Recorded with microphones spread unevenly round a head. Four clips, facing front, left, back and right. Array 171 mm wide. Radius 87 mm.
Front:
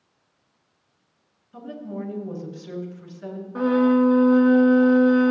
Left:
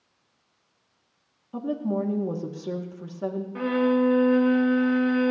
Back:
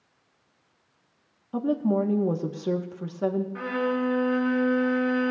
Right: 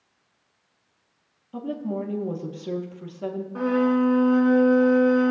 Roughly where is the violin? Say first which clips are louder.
Right 1 dB, front 9 dB; ahead.